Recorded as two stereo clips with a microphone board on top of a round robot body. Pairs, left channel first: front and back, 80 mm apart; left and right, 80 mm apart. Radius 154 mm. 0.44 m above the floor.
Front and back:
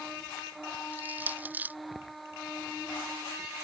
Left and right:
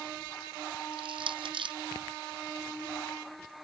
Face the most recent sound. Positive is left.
turn(degrees=-110)